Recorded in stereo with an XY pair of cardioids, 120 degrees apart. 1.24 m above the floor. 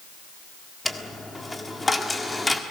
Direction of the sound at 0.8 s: 15° left.